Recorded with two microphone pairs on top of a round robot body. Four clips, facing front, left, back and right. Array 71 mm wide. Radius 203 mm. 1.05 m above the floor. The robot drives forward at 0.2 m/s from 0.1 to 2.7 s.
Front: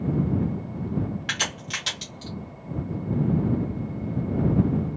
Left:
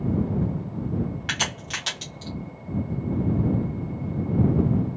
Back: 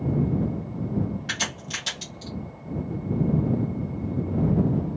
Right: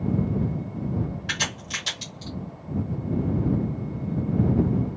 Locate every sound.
1.3 s a crack: 65° left, 0.7 m; by 2.3 s 95° left, 0.7 m